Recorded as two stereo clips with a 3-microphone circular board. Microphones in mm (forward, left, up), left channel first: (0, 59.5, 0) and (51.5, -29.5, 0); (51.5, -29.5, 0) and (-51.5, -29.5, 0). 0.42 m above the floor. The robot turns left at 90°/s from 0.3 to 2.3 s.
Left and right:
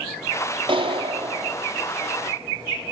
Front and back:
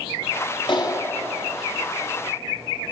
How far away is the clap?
About 2.0 m.